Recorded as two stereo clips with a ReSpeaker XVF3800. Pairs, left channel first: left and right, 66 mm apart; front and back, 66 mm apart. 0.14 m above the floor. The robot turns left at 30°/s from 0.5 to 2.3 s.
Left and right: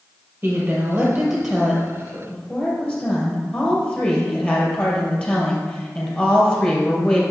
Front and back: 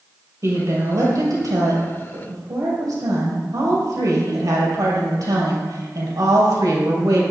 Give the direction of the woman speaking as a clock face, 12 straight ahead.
5 o'clock.